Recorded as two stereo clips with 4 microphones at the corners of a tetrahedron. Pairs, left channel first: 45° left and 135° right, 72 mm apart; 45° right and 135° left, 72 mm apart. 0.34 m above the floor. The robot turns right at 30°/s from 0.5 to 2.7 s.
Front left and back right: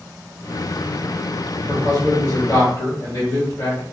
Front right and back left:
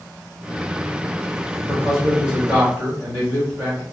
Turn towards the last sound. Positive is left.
turn(degrees=70)